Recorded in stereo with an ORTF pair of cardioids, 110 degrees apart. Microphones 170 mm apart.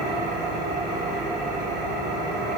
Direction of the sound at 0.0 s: 65° right.